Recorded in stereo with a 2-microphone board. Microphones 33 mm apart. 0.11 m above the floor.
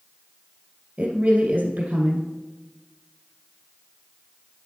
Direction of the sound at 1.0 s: 55° right (ahead or behind).